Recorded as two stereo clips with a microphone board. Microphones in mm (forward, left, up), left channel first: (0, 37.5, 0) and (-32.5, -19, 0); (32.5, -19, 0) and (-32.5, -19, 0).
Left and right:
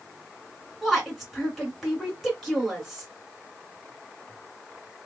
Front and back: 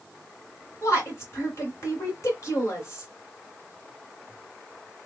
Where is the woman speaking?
30° right, 2 m.